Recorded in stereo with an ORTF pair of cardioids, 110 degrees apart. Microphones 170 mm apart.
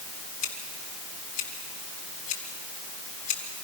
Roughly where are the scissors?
Ahead left.